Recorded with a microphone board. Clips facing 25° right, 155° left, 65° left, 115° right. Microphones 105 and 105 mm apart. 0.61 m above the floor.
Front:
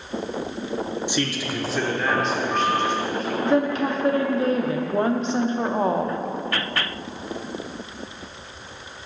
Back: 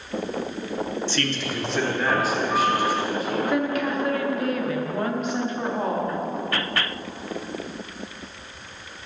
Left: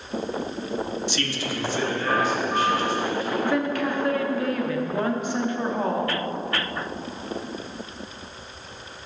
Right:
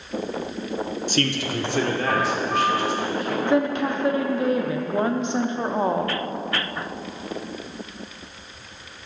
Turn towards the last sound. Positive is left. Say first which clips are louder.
# front 6 dB, right 5 dB
turn(degrees=-60)